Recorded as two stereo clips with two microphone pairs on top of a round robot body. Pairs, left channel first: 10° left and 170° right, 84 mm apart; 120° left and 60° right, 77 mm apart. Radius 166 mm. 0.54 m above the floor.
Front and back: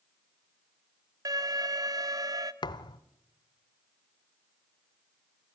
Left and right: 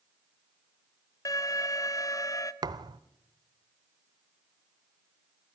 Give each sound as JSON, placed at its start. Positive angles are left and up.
{"t": 1.2, "sound": "an alarm", "azimuth_deg": 155, "distance_m": 1.4}
{"t": 2.6, "sound": "a thud", "azimuth_deg": -25, "distance_m": 0.8}